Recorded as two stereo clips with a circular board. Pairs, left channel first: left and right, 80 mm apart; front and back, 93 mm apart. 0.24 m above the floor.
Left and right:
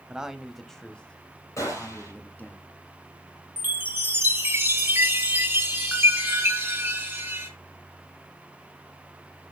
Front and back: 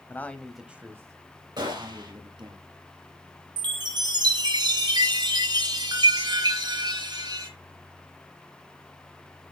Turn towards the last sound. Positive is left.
turn(degrees=-155)